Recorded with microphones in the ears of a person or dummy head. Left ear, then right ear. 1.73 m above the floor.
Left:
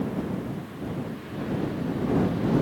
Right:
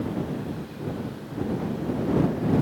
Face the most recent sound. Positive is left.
No sound to turn to.